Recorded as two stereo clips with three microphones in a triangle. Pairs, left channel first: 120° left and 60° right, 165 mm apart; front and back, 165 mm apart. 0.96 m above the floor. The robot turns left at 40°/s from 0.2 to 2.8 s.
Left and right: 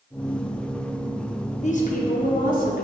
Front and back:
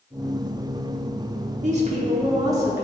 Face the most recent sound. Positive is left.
turn(degrees=105)